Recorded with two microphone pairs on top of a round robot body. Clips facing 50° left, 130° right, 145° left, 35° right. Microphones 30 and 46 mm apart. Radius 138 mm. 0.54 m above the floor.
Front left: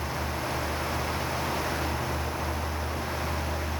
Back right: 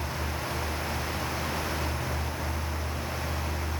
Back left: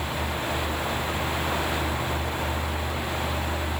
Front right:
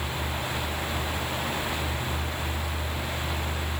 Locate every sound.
Only background noise.